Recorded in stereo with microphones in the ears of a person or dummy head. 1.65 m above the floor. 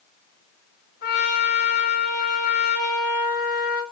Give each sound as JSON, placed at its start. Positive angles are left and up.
{"t": 1.0, "sound": "a trumpet", "side_deg": 50, "distance_m": 1.5}